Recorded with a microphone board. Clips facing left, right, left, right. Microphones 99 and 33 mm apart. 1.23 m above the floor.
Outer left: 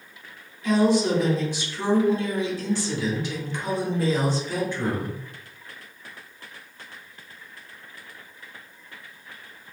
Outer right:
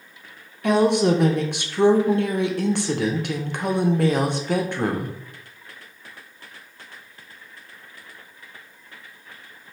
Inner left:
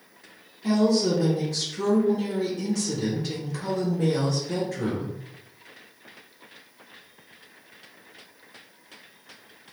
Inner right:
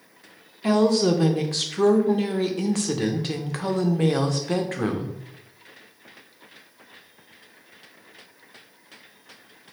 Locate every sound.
0.6 s a woman speaking: 65° right (ahead or behind), 0.6 m